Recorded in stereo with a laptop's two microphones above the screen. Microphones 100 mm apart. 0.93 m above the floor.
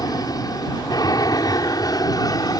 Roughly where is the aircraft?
Left.